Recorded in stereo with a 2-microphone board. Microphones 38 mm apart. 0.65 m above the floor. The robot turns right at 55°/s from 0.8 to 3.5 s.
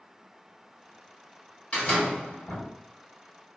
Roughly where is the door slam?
Ahead left.